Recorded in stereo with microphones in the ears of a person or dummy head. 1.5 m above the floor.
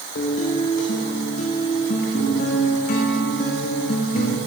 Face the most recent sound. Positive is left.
turn(degrees=40)  # may be behind; listen again after turning